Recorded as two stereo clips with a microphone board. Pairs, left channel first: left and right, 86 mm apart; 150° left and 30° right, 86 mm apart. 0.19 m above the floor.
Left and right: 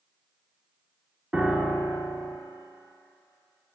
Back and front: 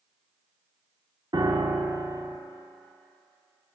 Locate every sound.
1.3 s a piano: 10° right, 1.0 m